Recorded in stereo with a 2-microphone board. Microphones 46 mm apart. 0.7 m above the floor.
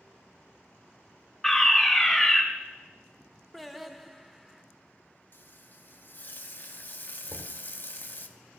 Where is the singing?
5° right (ahead or behind), 0.5 m.